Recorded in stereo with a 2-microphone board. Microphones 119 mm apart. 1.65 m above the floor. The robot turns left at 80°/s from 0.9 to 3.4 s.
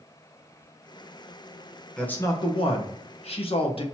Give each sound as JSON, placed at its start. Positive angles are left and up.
{"t": 2.0, "sound": "a man speaking", "azimuth_deg": 175, "distance_m": 1.0}